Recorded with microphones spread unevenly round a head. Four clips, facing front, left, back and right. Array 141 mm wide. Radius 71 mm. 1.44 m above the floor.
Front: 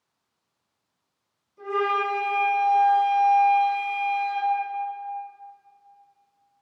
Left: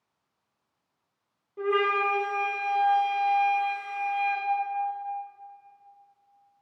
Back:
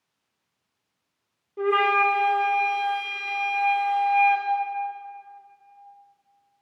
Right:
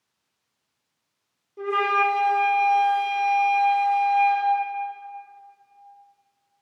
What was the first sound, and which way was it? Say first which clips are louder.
A flute: right 3 dB, back 4 dB; 175° left.